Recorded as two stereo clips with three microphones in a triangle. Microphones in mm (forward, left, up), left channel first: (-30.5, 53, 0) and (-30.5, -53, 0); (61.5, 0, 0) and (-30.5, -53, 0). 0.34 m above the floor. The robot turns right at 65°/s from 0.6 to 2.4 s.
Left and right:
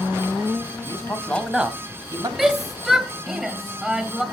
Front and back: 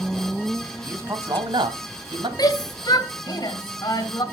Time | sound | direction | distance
0.8 | a man speaking | 135° left | 1.9 m
2.4 | a shout | 5° right | 2 m